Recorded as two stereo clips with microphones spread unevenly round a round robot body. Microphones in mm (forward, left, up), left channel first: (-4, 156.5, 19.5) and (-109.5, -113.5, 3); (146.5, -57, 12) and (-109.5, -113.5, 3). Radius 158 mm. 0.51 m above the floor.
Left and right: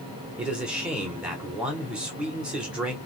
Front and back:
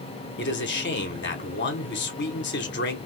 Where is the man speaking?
25° right, 1.1 m.